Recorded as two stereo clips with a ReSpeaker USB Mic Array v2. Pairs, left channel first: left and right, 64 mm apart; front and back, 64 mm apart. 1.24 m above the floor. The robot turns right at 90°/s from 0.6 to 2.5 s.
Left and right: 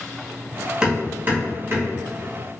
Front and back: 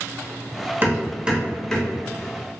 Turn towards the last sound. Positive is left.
turn(degrees=-5)